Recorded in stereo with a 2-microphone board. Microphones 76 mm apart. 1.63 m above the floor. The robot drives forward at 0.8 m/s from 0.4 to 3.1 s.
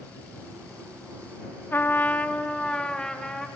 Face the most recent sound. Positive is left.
turn(degrees=10)  # may be behind; listen again after turning